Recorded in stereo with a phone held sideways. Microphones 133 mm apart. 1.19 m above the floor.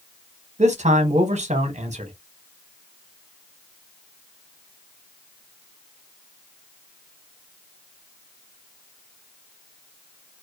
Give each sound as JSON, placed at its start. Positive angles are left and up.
{"t": 0.6, "sound": "a man speaking", "side_deg": -60, "distance_m": 0.8}